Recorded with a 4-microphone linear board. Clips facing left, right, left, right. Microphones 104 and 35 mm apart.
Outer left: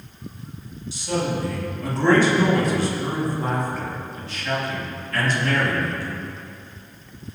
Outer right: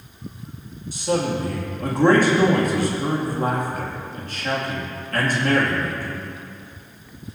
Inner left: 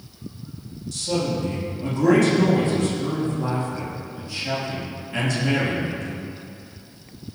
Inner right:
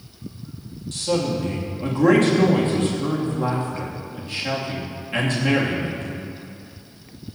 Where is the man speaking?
50° right (ahead or behind), 2.5 m.